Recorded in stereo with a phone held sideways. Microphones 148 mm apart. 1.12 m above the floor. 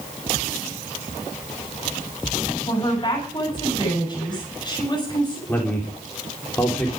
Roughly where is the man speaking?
Centre.